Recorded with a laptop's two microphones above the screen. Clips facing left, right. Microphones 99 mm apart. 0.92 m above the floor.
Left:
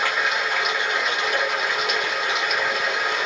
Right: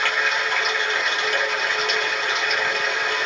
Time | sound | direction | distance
0.0 | running water | 5° left (ahead or behind) | 0.9 m